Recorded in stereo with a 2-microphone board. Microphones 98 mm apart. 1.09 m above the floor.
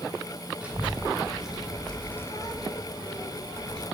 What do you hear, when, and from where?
0.6 s a child speaking: 15° right (ahead or behind), 1.4 m; by 3.8 s 45° left (ahead or behind), 1.0 m